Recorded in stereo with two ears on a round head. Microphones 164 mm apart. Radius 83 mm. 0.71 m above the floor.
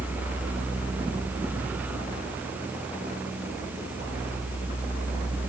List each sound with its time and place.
Only background noise.